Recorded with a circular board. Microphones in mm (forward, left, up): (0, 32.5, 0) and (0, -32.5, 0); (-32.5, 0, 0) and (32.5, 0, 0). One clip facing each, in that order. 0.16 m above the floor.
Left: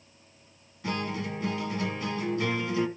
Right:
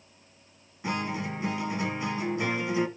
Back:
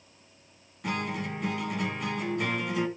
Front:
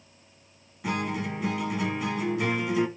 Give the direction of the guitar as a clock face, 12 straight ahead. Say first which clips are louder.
Right 1 dB, front 2 dB; 3 o'clock.